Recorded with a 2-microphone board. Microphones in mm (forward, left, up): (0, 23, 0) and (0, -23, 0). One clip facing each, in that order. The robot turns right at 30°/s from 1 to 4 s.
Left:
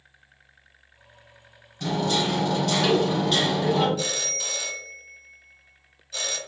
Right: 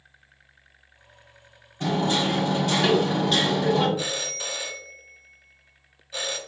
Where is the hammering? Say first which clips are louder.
Right 1 dB; 45° right, 1.5 m; by 3.9 s 15° left, 1.5 m.